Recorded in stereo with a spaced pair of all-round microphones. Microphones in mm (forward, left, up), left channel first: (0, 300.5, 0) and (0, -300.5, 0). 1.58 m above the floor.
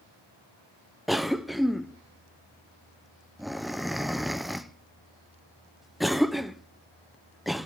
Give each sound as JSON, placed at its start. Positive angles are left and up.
{"t": 1.1, "sound": "a cough", "side_deg": 0, "distance_m": 0.6}